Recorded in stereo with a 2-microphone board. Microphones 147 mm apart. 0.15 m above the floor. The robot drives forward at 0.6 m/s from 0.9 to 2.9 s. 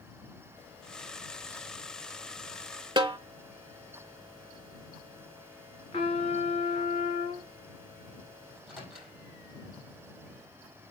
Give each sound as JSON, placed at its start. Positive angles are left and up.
{"t": 3.0, "sound": "a snare drum", "side_deg": -30, "distance_m": 0.6}
{"t": 5.9, "sound": "a trumpet", "side_deg": 40, "distance_m": 2.0}
{"t": 8.5, "sound": "a microwave", "side_deg": 0, "distance_m": 4.5}